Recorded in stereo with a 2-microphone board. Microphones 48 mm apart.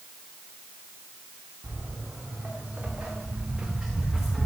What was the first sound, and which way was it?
Footsteps, 40° right (ahead or behind).